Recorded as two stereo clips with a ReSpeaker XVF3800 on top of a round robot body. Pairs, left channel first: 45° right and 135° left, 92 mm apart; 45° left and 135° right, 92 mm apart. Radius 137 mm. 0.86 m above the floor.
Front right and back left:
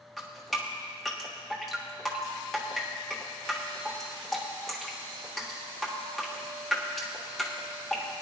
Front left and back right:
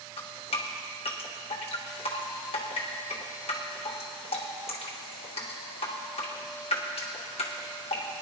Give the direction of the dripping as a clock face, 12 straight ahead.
11 o'clock.